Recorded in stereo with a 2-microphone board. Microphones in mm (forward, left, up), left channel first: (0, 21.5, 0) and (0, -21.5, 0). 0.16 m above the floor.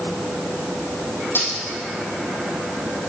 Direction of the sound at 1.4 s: 60° left (ahead or behind).